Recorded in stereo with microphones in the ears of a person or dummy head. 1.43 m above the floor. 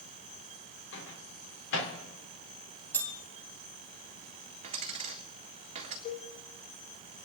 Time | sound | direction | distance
0.9 | a microwave | 80° left | 3 m
2.9 | a bell | 10° left (ahead or behind) | 1.7 m
4.6 | a dropped coin | 45° right (ahead or behind) | 1.7 m
6.0 | a cowbell | 75° left (ahead or behind) | 5 m